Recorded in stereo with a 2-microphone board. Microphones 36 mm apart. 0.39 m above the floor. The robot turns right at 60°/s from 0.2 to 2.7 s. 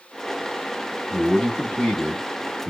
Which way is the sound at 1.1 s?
25° left (ahead or behind).